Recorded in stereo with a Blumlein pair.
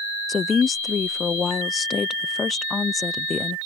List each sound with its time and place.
0.3 s a woman speaking: 15° left